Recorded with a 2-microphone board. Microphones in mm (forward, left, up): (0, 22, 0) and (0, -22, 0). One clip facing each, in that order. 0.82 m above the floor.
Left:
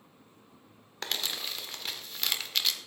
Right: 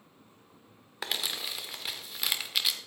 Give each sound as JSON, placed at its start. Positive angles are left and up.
{"t": 1.0, "sound": "crumpling", "side_deg": -5, "distance_m": 1.2}